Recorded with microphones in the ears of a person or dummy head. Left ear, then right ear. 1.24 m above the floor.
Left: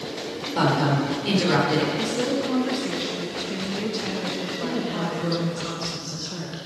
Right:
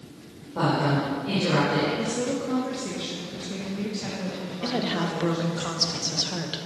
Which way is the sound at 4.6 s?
30° right (ahead or behind).